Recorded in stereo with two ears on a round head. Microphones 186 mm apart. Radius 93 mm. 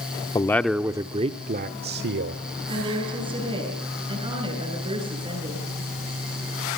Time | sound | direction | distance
0.3 | a man speaking | 20° left (ahead or behind) | 0.8 m
2.7 | a woman speaking | 25° right (ahead or behind) | 7.5 m